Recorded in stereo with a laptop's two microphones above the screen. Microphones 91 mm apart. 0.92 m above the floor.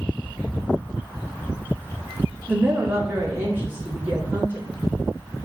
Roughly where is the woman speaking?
Right.